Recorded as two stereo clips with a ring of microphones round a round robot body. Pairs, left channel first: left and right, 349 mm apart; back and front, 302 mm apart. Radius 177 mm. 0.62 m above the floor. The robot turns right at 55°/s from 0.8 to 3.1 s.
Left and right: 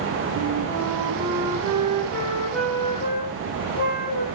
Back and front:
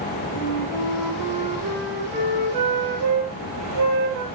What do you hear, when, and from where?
0.3 s a flute: 100° right, 6.5 m; by 4.2 s 30° left, 6.5 m